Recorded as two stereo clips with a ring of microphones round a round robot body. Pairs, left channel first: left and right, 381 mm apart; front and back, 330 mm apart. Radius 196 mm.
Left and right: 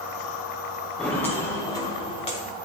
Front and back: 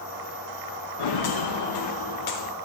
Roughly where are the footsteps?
Ahead.